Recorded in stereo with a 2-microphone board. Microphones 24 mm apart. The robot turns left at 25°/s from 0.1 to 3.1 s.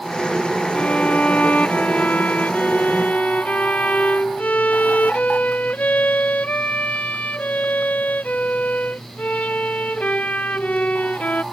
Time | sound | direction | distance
0.7 | a violin | 130° left | ?